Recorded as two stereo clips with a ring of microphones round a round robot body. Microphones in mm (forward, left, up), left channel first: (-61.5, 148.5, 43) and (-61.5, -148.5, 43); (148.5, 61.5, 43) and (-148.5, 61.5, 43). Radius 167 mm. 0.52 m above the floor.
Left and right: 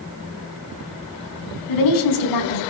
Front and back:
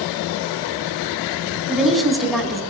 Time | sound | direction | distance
1.7 | a woman speaking | 90° left | 4.5 m